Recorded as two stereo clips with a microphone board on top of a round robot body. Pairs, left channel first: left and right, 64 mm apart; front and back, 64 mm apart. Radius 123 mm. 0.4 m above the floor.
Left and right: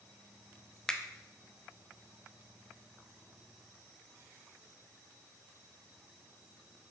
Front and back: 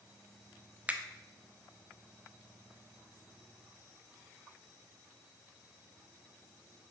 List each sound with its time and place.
0.9 s a finger snap: 155° left, 0.6 m